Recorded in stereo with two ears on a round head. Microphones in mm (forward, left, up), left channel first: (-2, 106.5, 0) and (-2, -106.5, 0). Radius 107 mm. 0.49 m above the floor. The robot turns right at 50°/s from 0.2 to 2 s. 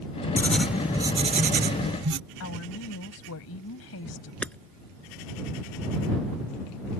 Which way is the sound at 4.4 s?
5° left (ahead or behind).